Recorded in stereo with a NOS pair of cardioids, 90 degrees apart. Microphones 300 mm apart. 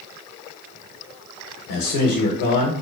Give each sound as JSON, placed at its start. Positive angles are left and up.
{"t": 1.7, "sound": "a man speaking", "azimuth_deg": 70, "distance_m": 0.7}